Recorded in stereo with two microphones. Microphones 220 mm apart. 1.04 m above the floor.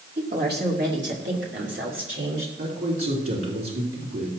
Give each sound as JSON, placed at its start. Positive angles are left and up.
{"t": 0.2, "sound": "a woman speaking", "side_deg": -45, "distance_m": 2.5}
{"t": 2.6, "sound": "a man speaking", "side_deg": -75, "distance_m": 3.5}